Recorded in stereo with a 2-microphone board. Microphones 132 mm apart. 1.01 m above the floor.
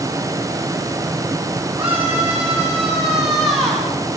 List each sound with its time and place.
1.8 s a scream: 10° right (ahead or behind), 9.5 m; by 3.9 s 5° left (ahead or behind), 8 m